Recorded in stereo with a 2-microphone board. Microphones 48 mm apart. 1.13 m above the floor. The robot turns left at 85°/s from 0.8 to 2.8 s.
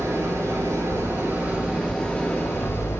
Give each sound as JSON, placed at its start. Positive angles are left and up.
{"t": 0.0, "sound": "an engine running", "azimuth_deg": -85, "distance_m": 2.5}